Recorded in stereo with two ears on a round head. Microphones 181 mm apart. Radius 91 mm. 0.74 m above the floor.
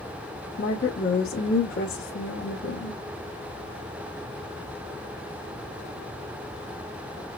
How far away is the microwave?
No microwave in this recording.